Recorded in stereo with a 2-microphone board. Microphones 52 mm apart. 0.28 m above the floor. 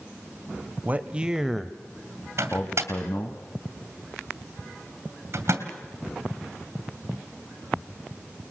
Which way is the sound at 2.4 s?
55° right (ahead or behind).